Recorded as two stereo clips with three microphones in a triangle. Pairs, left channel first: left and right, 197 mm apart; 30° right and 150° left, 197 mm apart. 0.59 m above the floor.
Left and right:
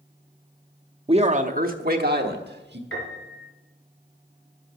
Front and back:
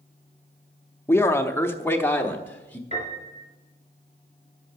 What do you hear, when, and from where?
1.1 s a man speaking: 95° right, 0.6 m; by 2.8 s 110° right, 1.4 m
2.9 s a piano: 95° left, 3 m